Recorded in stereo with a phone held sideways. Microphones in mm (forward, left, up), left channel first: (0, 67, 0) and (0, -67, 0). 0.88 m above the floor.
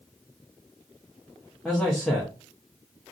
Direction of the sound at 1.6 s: Centre (ahead or behind).